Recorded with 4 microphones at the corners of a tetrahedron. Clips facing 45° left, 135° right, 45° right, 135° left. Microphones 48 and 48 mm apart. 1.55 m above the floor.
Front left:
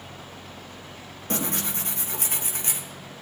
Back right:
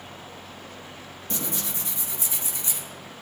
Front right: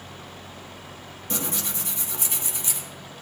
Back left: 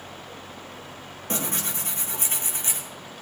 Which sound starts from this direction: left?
Tearing paper, at 1.3 s.